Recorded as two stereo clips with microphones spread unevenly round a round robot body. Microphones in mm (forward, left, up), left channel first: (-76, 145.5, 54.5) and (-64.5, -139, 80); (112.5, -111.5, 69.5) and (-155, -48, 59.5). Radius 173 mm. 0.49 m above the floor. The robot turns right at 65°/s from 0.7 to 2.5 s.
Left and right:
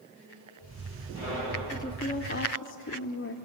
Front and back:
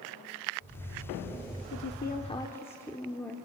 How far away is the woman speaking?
About 1.2 m.